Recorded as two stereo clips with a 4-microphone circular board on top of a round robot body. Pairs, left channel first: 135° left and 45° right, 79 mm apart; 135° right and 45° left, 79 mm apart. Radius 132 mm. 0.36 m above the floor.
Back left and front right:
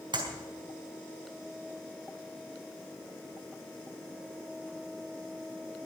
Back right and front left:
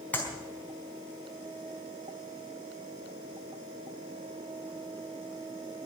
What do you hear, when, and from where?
0.1 s a clap: 65° right, 4.5 m